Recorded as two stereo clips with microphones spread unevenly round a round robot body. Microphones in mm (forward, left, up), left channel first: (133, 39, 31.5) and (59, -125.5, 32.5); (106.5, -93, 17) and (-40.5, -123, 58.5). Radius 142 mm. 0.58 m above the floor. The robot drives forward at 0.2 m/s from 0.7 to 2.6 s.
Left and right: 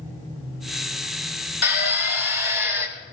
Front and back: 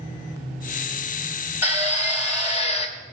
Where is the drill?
110° left, 1.7 m; by 2.9 s 115° left, 1.8 m.